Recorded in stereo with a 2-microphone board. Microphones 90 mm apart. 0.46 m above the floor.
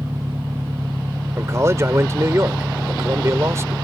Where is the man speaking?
35° right (ahead or behind).